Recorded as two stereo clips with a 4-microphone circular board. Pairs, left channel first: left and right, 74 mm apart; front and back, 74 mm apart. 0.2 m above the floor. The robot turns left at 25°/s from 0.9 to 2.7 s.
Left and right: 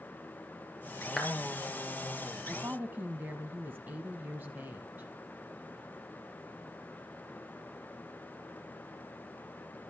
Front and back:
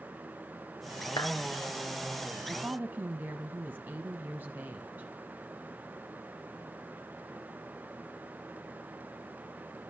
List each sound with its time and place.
1.2 s a clap: 5° left, 4 m; by 1.3 s straight ahead, 4 m
2.5 s a woman speaking: 125° right, 1.3 m; by 5.1 s 135° right, 1.3 m